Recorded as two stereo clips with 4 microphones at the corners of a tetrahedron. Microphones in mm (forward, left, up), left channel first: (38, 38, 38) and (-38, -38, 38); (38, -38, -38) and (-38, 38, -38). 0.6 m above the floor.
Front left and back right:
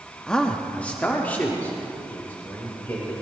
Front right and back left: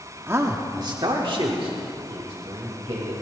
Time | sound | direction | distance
0.3 | a man speaking | 120° left | 1.0 m